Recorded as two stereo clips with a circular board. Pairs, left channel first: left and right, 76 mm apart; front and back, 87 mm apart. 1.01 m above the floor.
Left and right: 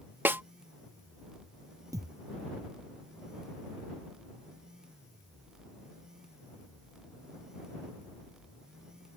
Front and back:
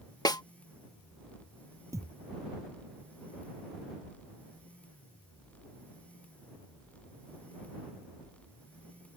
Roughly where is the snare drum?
Ahead right.